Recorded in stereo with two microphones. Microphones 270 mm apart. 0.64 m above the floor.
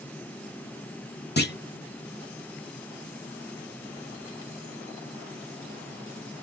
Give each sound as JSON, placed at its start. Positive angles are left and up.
{"t": 1.4, "sound": "a clunk", "side_deg": 40, "distance_m": 0.8}